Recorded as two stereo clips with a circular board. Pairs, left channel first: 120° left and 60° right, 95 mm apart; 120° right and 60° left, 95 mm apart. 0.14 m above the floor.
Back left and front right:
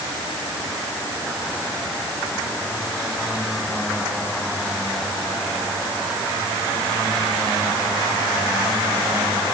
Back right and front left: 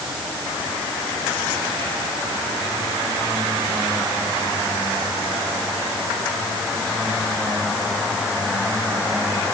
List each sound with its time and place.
Only background noise.